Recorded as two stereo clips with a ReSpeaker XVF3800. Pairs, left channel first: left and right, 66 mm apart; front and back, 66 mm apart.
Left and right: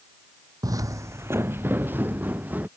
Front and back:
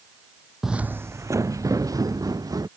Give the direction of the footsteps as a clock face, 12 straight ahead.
3 o'clock.